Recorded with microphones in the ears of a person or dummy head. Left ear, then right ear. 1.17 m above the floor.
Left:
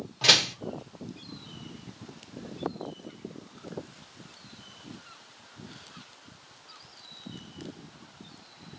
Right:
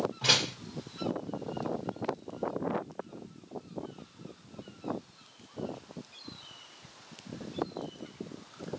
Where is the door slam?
40° left (ahead or behind), 1.0 m.